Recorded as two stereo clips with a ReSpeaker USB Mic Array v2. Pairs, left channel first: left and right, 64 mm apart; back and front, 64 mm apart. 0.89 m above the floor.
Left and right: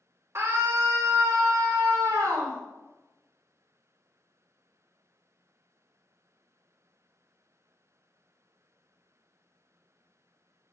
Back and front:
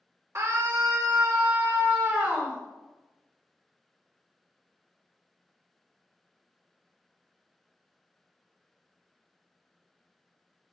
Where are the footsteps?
No footsteps in this recording.